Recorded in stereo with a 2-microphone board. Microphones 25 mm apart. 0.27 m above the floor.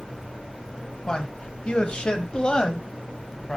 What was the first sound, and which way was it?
A man speaking, 35° left (ahead or behind).